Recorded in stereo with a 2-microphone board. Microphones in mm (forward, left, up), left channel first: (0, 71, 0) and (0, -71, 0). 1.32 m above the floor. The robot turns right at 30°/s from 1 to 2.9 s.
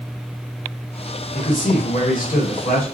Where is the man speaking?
65° left, 1.3 m; by 2.8 s 110° left, 1.3 m.